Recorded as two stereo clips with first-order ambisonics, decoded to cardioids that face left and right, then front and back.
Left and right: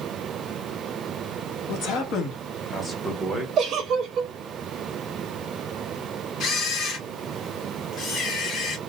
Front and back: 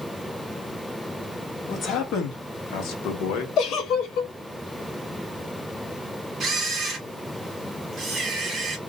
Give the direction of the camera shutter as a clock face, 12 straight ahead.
8 o'clock.